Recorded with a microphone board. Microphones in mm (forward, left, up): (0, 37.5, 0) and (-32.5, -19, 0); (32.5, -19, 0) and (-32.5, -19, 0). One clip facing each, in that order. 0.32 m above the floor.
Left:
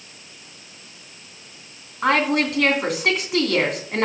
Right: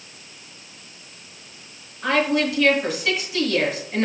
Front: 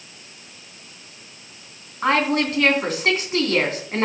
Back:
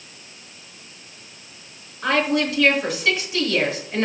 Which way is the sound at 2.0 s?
40° left.